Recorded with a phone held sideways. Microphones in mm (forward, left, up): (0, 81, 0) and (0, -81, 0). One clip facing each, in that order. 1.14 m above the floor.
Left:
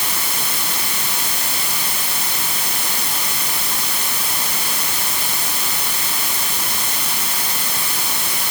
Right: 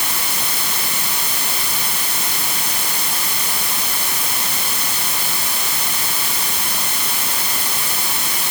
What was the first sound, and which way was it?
Only background noise.